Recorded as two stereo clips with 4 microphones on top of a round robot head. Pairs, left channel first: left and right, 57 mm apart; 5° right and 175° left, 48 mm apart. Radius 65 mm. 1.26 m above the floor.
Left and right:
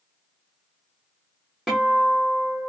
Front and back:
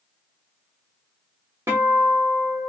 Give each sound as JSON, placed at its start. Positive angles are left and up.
{"t": 1.7, "sound": "a guitar", "azimuth_deg": -175, "distance_m": 0.9}